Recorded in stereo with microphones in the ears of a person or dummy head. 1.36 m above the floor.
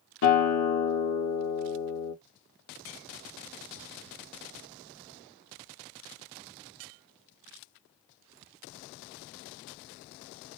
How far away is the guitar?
About 1.5 m.